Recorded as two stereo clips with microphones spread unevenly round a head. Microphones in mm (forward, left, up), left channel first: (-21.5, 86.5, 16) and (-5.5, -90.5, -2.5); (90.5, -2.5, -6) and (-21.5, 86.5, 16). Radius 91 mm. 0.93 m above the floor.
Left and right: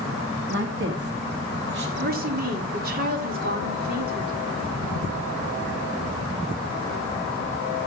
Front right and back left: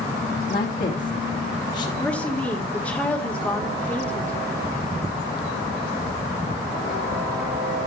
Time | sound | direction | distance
0.5 | a woman speaking | 70° right | 2 m
2.0 | a woman speaking | 120° right | 3 m